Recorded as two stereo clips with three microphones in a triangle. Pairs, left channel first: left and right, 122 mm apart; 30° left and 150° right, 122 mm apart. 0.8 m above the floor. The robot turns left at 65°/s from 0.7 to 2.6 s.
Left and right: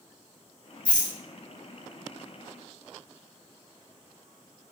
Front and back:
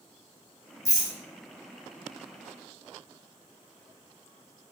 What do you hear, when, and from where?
0.8 s a rattle: 25° left, 1.1 m; by 1.1 s 5° left, 1.1 m